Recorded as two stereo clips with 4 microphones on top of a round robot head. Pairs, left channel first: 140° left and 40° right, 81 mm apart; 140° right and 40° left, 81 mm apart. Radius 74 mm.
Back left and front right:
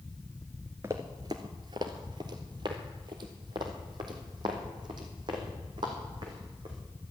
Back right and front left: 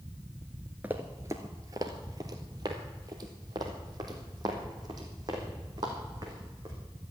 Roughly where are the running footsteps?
Ahead.